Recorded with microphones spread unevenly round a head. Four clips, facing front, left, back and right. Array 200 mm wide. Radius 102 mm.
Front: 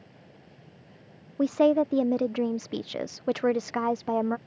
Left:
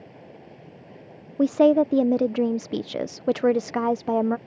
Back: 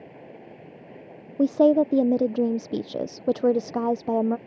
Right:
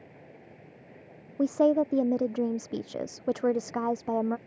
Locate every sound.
0.0 s running water: 155° left
1.4 s a woman speaking: 130° left